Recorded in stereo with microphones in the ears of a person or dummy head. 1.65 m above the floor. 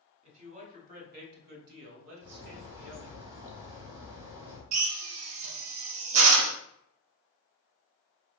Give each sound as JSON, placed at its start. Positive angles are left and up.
{"t": 0.2, "sound": "a man speaking", "side_deg": -35, "distance_m": 1.6}
{"t": 2.2, "sound": "a bird", "side_deg": -20, "distance_m": 1.2}
{"t": 4.7, "sound": "a drill", "side_deg": -75, "distance_m": 0.8}